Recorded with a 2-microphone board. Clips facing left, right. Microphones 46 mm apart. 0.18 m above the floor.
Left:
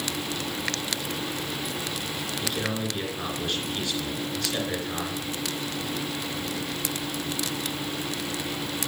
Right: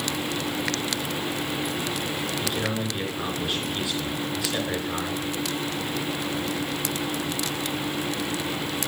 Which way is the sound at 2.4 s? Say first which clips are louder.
Left 1 dB; 5° right (ahead or behind).